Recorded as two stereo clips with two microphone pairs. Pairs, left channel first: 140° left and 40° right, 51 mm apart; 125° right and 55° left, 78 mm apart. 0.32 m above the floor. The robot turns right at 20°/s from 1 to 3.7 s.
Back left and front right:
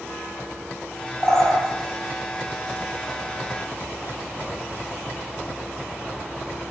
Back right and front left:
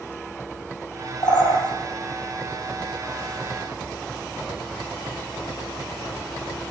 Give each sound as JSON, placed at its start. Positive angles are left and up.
{"t": 1.2, "sound": "a bird", "azimuth_deg": -155, "distance_m": 6.5}